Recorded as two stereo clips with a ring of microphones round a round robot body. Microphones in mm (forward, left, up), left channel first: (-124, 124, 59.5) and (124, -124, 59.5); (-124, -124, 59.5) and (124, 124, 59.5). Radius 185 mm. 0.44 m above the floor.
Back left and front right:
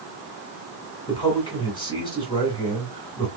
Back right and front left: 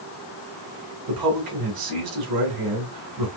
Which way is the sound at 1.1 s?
60° left.